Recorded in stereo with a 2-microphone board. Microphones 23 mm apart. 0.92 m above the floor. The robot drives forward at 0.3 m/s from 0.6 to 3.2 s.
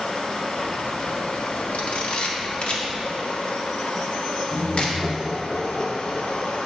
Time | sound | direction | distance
0.0 | running water | 50° left (ahead or behind) | 0.8 m
1.7 | a camera shutter | 60° left (ahead or behind) | 0.9 m
4.5 | laughter | 30° right (ahead or behind) | 1.6 m